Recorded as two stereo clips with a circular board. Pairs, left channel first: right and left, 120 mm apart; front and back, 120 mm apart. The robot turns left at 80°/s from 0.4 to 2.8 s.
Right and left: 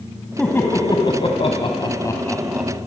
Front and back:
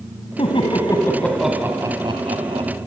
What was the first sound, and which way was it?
Laughter, 10° right.